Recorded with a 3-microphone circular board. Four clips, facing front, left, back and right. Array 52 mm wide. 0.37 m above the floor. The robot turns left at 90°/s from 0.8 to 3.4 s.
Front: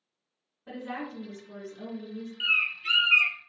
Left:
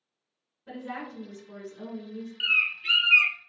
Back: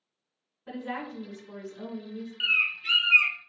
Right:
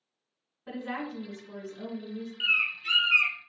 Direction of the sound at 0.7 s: 90° right.